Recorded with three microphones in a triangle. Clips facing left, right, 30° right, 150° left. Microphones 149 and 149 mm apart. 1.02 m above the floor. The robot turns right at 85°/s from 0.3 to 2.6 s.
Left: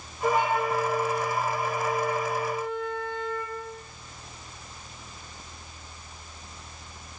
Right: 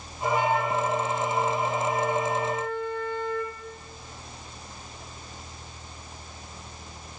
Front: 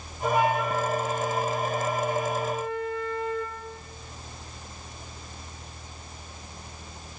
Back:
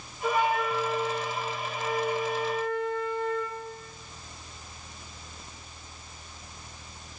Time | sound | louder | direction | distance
0.2 | a flute | even, front 2 dB | 45° left | 1.4 m